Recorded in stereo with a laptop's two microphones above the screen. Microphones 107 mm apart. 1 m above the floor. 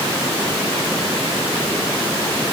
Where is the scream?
I don't hear a scream.